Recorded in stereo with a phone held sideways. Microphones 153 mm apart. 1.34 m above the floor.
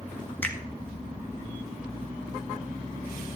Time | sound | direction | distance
0.4 | a finger snap | 10° left (ahead or behind) | 1.8 m